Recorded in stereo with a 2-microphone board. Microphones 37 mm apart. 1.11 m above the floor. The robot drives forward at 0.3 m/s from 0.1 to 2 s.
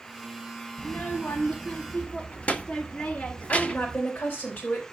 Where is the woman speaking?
70° left (ahead or behind), 5 m.